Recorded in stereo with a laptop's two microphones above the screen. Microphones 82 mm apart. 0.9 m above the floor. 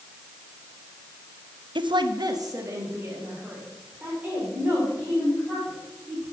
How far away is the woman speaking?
About 0.7 m.